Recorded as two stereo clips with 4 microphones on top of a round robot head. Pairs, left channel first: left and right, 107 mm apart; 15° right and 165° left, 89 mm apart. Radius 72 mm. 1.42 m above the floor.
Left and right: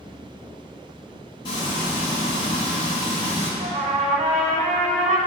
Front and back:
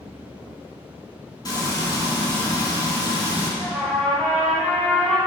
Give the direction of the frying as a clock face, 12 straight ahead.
11 o'clock.